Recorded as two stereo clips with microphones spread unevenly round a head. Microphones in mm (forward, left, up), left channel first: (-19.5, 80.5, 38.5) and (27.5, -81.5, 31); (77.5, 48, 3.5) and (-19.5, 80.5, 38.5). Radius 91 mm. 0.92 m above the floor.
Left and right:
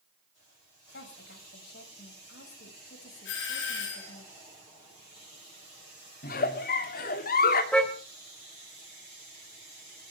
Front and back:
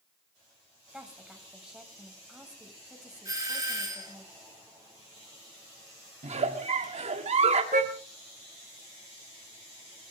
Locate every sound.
0.9 s a woman speaking: 75° left, 5.5 m
3.2 s a doorbell: 100° left, 5 m
6.2 s a giggle: 145° left, 2.5 m
7.7 s a car horn: 170° right, 2.5 m